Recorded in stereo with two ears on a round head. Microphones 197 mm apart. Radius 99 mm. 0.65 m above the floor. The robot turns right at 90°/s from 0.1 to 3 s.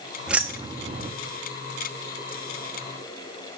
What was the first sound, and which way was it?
Keys jangling, 5° right (ahead or behind).